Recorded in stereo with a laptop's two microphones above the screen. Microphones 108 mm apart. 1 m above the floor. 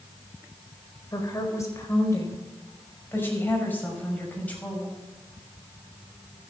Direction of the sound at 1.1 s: 35° left (ahead or behind).